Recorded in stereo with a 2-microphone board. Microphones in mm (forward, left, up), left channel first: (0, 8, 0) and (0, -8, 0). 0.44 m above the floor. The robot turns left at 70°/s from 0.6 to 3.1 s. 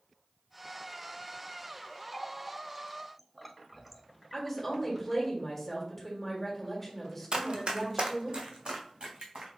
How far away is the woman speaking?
About 1.6 m.